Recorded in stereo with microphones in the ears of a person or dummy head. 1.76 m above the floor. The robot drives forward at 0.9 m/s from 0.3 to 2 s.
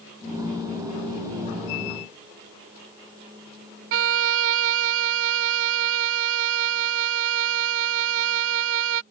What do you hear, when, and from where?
3.9 s a violin: 70° right (ahead or behind)